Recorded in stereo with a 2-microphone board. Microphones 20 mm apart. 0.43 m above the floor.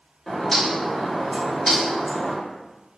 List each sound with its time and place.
0.3 s a bird: 15° left (ahead or behind), 0.7 m